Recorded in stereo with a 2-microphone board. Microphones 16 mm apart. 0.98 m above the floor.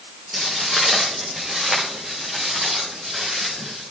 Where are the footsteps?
25° right (ahead or behind), 4 m; by 3.8 s 20° right (ahead or behind), 9.5 m.